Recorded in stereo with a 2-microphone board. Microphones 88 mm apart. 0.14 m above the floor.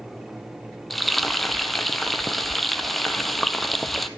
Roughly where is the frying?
Centre.